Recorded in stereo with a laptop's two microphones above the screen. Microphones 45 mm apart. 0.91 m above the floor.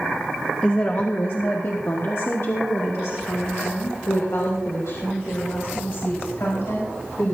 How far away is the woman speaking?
About 0.6 m.